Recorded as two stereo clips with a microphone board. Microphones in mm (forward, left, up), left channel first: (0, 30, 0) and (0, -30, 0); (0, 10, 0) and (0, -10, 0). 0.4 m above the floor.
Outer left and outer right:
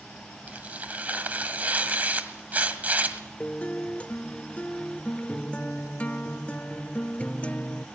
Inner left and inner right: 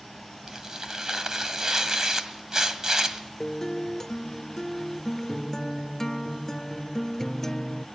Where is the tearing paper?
30° right (ahead or behind), 1.7 m.